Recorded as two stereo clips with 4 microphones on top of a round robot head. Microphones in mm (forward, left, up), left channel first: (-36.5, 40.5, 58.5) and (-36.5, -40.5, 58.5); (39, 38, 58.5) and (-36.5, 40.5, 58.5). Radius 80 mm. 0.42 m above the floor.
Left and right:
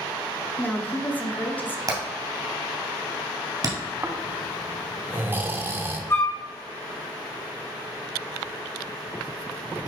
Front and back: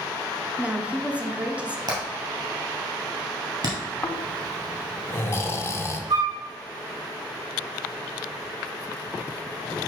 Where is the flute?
150° left, 1.0 m.